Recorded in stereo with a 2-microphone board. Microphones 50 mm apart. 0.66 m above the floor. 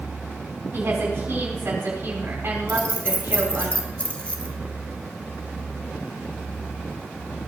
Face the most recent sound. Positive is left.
turn(degrees=25)  # may be behind; listen again after turning